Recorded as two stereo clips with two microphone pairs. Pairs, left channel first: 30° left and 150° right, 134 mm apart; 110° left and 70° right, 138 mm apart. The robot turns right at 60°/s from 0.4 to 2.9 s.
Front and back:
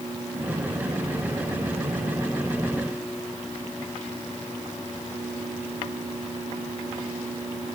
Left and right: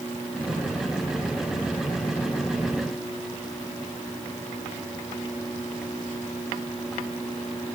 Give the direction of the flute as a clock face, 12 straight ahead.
I don't hear a flute.